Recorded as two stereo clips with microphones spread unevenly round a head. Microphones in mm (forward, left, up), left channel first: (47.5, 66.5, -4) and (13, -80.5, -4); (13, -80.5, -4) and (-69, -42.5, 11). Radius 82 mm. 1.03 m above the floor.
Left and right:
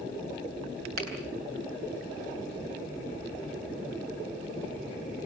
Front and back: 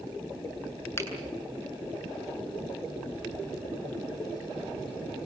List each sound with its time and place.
1.0 s a finger snap: 90° right, 9 m